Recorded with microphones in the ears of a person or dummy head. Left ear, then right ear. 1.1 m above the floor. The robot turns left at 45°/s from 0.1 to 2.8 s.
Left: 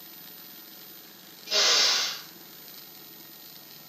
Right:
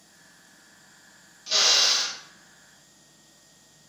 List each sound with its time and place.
1.5 s a drill: 35° right, 2.5 m; by 2.2 s 70° right, 2.5 m